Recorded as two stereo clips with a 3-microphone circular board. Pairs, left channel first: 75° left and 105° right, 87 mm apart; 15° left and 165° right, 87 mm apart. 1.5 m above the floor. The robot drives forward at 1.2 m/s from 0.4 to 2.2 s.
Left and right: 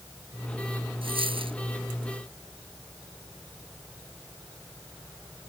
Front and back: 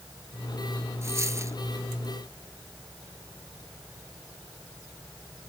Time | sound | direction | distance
1.0 | a dropped coin | 105° right | ?